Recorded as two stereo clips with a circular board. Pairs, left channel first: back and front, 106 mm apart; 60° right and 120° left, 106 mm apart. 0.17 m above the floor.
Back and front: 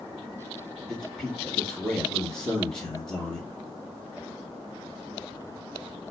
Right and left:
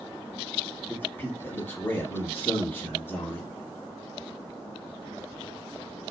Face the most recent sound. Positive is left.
turn(degrees=-100)